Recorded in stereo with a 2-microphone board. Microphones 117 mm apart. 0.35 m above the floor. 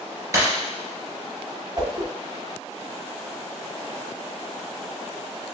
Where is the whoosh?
40° right (ahead or behind), 0.8 m.